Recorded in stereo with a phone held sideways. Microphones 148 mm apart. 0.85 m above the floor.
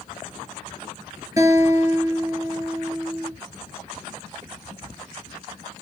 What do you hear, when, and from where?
1.4 s a guitar: 25° right (ahead or behind), 3 m